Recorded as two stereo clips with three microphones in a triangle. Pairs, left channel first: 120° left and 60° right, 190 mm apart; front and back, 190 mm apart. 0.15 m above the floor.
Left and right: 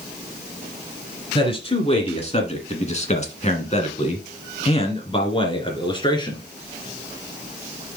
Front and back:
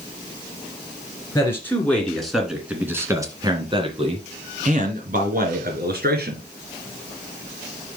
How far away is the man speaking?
About 2 m.